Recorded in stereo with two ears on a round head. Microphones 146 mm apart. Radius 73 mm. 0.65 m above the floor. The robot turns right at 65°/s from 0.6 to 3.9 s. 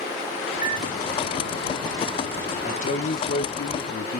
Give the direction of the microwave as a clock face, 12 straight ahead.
5 o'clock.